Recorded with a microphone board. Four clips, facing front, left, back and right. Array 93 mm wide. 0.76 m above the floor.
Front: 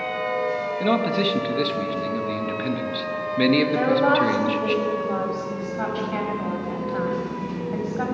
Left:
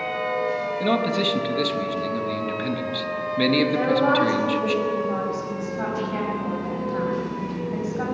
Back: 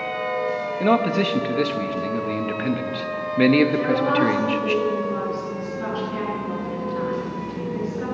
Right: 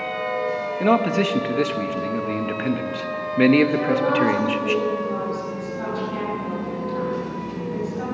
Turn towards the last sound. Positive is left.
turn(degrees=20)